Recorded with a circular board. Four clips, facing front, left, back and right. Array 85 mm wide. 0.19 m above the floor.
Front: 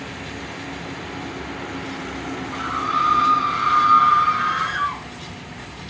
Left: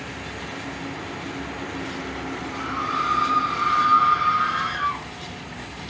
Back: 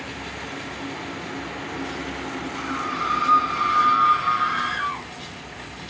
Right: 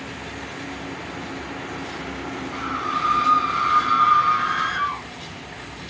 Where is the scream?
20° right, 6 m; by 5.0 s 35° right, 8.5 m.